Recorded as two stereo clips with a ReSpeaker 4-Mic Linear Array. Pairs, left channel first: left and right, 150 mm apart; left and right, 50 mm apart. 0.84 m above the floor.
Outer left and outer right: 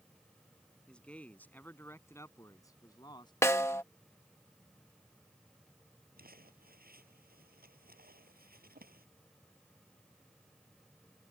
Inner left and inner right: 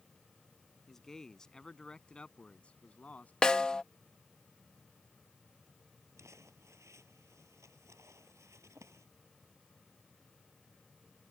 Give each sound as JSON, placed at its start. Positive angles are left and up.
{"t": 0.9, "sound": "a man speaking", "side_deg": 5}
{"t": 3.4, "sound": "a snare drum", "side_deg": 20}
{"t": 6.2, "sound": "crumpling", "side_deg": -80}